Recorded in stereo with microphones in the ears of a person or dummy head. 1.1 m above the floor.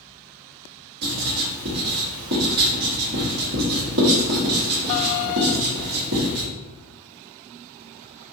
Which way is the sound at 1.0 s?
55° right (ahead or behind).